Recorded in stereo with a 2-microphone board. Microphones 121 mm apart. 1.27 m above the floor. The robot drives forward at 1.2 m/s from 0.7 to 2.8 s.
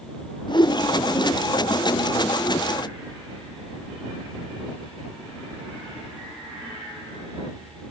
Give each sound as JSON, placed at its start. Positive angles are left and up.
{"t": 0.5, "sound": "a whoosh", "side_deg": 40, "distance_m": 0.8}